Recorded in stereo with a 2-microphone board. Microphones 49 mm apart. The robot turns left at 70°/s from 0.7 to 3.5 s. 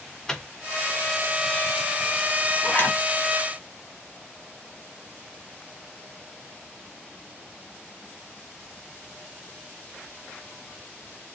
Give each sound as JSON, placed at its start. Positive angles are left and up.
{"t": 0.3, "sound": "a microwave", "side_deg": 10, "distance_m": 0.6}
{"t": 2.6, "sound": "a zipper", "side_deg": 45, "distance_m": 1.4}